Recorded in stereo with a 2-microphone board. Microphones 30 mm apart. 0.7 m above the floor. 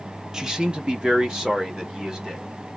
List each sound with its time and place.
0.3 s a man speaking: 20° right (ahead or behind), 0.6 m; by 2.5 s 30° right (ahead or behind), 1.8 m